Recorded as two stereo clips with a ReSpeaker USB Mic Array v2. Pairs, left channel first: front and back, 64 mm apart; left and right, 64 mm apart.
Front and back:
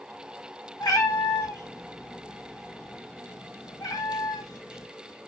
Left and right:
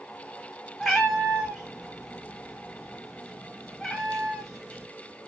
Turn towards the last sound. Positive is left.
turn(degrees=10)